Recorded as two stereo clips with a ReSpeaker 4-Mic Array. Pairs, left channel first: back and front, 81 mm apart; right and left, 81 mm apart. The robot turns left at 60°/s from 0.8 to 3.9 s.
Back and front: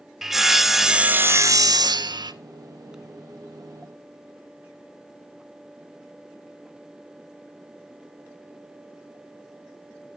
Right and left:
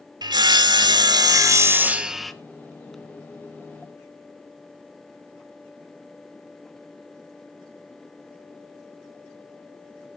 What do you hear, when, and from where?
0.2 s sawing: 85° left, 0.5 m; by 2.3 s 5° right, 0.5 m